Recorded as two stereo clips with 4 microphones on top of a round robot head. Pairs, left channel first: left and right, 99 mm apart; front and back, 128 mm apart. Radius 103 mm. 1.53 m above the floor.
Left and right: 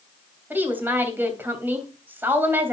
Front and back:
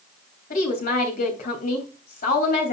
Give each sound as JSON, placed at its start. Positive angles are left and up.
{"t": 0.5, "sound": "a woman speaking", "azimuth_deg": -20, "distance_m": 3.0}